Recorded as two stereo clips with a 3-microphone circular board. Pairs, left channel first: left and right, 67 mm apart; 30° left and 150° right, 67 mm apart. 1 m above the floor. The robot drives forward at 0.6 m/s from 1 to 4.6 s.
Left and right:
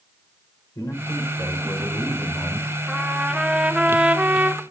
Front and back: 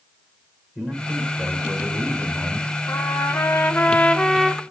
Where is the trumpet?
10° right, 1.2 m; by 4.6 s 85° right, 0.5 m.